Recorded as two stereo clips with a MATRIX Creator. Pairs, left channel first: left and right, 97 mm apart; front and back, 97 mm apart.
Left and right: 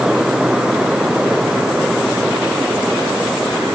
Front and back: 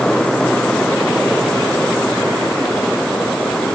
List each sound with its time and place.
Only background noise.